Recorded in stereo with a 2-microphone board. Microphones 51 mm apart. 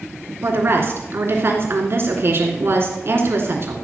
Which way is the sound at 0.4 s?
50° right (ahead or behind).